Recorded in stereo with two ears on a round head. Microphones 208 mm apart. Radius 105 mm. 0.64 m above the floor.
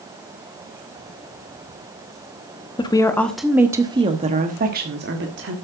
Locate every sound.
2.8 s a woman speaking: 20° left (ahead or behind), 0.9 m; by 5.5 s 55° right (ahead or behind), 1.4 m